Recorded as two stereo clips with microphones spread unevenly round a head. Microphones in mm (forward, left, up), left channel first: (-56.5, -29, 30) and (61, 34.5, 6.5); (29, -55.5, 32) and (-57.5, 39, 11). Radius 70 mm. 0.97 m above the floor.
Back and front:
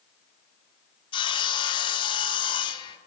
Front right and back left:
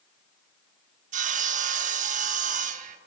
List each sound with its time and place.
1.1 s sawing: 150° left, 0.6 m